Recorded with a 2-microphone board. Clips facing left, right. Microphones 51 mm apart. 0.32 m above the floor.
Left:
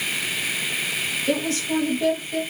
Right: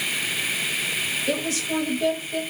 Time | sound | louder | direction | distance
1.3 | a woman speaking | left 4 dB | centre (ahead or behind) | 1.4 m